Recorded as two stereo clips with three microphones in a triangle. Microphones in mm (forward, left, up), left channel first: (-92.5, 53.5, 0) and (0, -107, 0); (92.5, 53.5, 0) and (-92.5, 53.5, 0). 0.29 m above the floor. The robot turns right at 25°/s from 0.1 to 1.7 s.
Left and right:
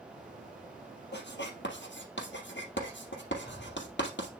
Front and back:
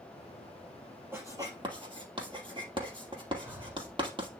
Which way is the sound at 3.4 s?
100° left.